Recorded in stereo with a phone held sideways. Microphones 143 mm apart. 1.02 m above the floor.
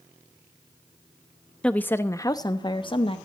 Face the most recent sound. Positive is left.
turn(degrees=40)  # may be behind; listen again after turning